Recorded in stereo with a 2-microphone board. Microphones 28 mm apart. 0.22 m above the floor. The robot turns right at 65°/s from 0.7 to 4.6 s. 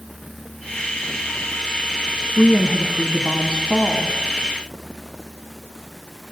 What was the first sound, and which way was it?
A woman speaking, 125° right.